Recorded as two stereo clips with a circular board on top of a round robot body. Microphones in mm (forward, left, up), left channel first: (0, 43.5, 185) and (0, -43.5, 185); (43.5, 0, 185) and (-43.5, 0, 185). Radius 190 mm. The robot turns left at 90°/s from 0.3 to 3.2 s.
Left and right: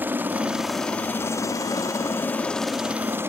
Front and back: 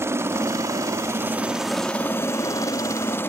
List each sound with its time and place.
0.0 s a helicopter: 145° right; by 3.3 s 45° right